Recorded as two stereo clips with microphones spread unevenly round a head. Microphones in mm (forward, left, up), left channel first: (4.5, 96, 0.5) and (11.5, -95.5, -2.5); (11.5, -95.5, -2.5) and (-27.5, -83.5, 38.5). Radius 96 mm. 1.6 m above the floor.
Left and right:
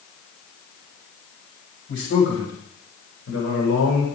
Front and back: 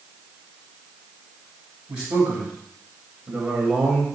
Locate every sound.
1.9 s a man speaking: 120° left, 8.5 m